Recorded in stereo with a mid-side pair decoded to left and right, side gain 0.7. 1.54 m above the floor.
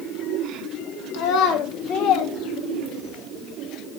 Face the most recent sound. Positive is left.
turn(degrees=45)